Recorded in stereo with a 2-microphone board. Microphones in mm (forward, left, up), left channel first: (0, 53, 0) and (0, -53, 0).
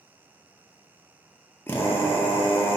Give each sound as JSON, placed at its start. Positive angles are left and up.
{"t": 1.7, "sound": "a drill", "side_deg": 20, "distance_m": 0.6}